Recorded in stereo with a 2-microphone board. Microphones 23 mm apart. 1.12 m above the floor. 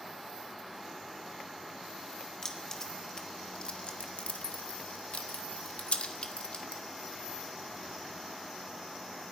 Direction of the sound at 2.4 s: 25° left (ahead or behind).